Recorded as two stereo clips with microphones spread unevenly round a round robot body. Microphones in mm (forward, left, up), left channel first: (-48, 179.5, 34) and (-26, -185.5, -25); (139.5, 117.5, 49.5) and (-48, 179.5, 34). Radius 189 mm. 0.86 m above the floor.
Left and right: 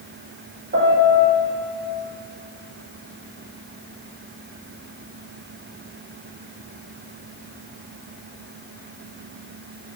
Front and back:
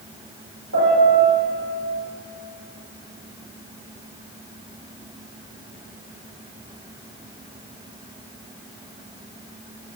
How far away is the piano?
About 6 m.